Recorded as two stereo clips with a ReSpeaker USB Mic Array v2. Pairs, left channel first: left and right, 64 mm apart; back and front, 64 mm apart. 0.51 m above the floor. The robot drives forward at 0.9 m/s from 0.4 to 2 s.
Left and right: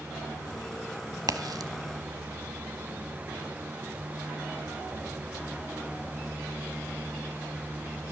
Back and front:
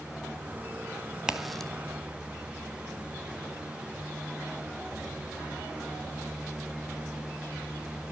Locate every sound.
1.3 s a crack: 80° right, 1.0 m; by 1.7 s 100° right, 1.0 m